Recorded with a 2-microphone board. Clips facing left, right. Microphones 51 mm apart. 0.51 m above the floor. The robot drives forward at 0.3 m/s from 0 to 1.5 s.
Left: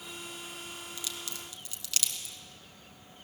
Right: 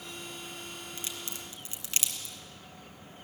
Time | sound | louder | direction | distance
1.0 | a crack | even | 30° right (ahead or behind) | 2.5 m